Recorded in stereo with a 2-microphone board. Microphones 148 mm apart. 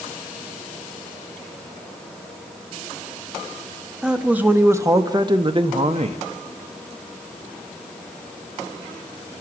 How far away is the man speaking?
About 1.6 m.